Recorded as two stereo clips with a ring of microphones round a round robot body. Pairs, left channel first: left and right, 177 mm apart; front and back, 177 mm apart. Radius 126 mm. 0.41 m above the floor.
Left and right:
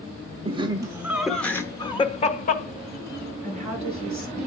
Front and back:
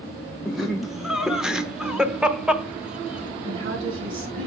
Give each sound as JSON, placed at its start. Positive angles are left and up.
{"t": 0.5, "sound": "laughter", "azimuth_deg": -95, "distance_m": 1.1}
{"t": 3.4, "sound": "a woman speaking", "azimuth_deg": -175, "distance_m": 5.5}